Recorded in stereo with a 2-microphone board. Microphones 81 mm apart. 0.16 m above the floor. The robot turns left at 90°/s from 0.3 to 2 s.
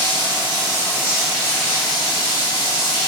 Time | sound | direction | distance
0.0 | running water | 95° right | 0.8 m